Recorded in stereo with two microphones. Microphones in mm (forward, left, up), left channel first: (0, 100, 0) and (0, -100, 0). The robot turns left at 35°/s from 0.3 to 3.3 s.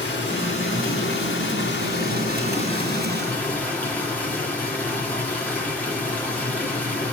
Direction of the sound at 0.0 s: 115° left.